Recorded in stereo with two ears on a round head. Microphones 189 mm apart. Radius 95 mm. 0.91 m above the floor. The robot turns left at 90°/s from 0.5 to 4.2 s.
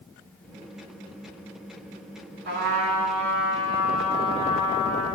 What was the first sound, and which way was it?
A trumpet, 40° right.